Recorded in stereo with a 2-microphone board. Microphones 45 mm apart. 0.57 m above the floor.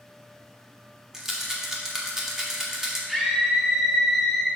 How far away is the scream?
About 1.2 m.